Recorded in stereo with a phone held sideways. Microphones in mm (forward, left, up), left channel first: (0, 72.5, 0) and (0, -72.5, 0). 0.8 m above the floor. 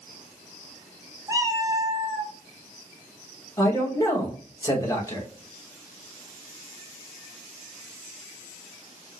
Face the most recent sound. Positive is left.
turn(degrees=20)  # may be behind; listen again after turning